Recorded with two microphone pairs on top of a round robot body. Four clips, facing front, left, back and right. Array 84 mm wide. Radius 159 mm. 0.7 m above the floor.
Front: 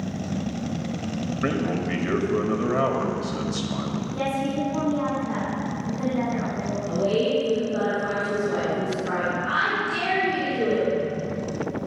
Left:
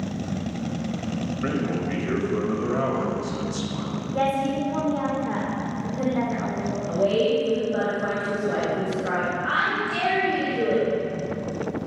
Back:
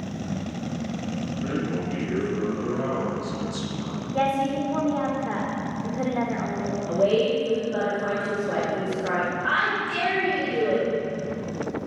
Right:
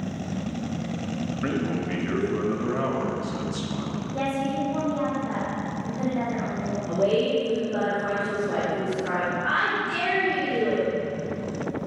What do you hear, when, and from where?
1.4 s a man speaking: 10° right, 2 m
4.1 s a woman speaking: 175° right, 3 m
6.9 s a woman speaking: 150° right, 3 m